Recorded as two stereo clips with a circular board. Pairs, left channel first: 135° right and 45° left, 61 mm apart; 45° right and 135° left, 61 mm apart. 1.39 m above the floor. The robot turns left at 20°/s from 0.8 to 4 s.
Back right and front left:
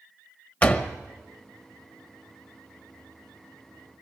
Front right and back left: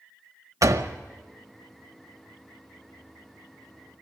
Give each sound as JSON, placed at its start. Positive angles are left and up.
{"t": 0.6, "sound": "a door slam", "azimuth_deg": 160, "distance_m": 1.0}